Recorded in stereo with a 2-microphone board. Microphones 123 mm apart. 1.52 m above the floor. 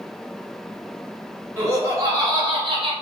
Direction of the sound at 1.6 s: 25° right (ahead or behind).